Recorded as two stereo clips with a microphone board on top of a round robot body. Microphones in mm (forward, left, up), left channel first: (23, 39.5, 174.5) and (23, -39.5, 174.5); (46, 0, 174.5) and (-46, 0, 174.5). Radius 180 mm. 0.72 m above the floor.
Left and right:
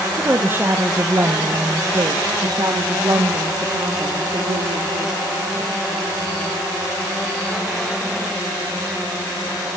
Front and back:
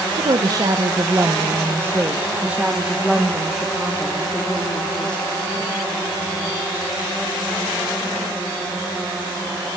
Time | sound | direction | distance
0.2 | a woman speaking | 155° right | 1.7 m